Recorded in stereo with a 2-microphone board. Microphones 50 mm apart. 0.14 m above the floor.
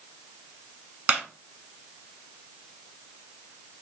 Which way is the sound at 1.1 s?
30° right (ahead or behind).